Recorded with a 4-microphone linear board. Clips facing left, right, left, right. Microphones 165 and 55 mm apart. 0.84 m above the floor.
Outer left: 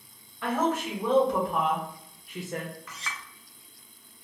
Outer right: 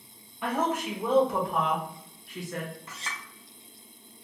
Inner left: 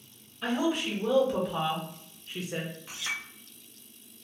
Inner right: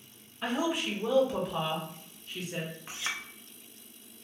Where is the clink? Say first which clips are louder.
Even, inner left 1 dB; 30° right (ahead or behind), 0.6 m.